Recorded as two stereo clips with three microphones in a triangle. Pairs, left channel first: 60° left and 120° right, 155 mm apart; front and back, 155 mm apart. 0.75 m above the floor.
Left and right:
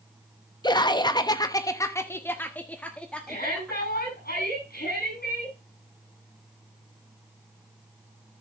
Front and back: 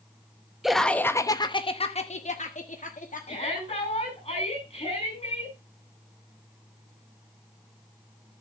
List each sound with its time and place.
0.6 s laughter: 95° left, 0.8 m; by 4.1 s 30° right, 1.9 m
3.3 s a shout: 50° left, 8 m